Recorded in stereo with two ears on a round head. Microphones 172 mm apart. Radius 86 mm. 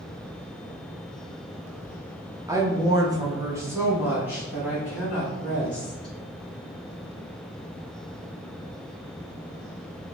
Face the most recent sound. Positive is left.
turn(degrees=0)  # may be behind; listen again after turning